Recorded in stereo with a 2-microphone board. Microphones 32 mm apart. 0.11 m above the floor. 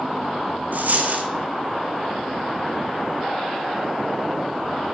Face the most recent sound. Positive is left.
turn(degrees=-65)  # may be behind; listen again after turning